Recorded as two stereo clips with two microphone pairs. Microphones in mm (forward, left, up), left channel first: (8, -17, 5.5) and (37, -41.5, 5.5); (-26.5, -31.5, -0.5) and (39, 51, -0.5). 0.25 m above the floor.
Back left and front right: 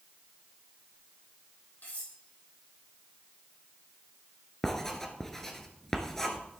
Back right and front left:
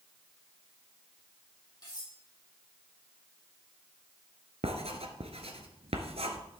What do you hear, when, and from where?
1.8 s cutlery clinking: straight behind, 4.5 m
4.6 s writing: 60° left, 1.4 m